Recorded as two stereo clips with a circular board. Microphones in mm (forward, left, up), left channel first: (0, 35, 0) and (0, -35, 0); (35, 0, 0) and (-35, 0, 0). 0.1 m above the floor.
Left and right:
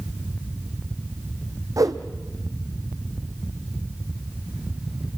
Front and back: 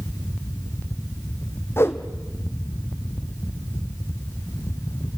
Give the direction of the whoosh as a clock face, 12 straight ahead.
2 o'clock.